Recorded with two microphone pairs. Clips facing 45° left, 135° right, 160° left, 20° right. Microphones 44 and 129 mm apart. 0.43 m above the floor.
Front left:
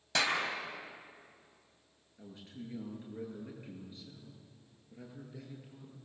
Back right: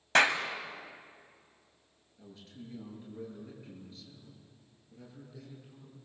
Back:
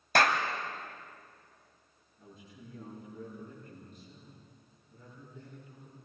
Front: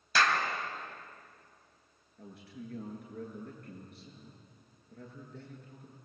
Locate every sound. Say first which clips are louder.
0.1 s a clap: back right 7 dB, back 2 dB; 175° right, 3 m
2.2 s a man speaking: front left 2 dB, front 6 dB; 20° right, 8.5 m